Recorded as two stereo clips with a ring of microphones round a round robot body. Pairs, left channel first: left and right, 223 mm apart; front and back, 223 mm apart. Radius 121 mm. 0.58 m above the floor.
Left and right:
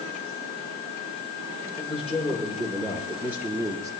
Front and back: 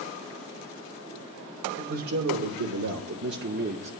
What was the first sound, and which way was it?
A man speaking, straight behind.